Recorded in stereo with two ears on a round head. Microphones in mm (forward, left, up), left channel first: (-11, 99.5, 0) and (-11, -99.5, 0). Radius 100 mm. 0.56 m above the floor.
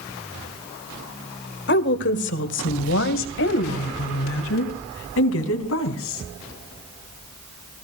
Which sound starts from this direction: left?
A woman speaking, at 1.7 s.